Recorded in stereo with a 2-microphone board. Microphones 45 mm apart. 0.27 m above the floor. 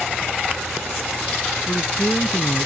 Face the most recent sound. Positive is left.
turn(degrees=55)  # may be behind; listen again after turning